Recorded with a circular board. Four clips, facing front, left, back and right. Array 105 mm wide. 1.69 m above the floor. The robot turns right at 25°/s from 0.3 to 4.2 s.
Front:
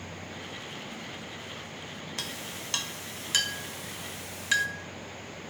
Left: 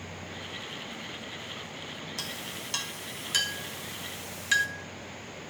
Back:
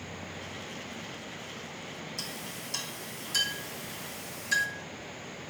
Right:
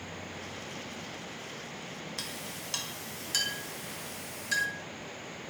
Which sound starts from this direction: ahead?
A clink, at 2.2 s.